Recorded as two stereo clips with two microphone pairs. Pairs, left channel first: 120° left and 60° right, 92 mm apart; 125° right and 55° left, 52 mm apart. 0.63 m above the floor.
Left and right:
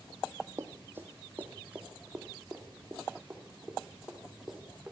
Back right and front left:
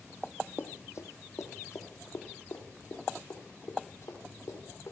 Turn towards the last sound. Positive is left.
turn(degrees=-145)